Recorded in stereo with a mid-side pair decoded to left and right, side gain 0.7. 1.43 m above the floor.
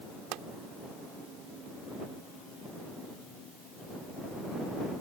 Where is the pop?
60° right.